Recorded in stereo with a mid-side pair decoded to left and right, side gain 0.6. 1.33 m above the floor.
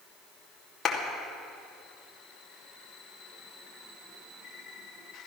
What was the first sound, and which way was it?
A clap, 40° left.